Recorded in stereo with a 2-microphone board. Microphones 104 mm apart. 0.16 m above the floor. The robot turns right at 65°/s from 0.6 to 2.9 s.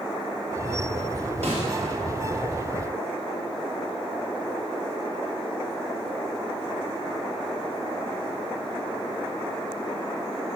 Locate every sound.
1.4 s a snare drum: 70° right (ahead or behind), 2.5 m; by 1.7 s 65° right (ahead or behind), 2.5 m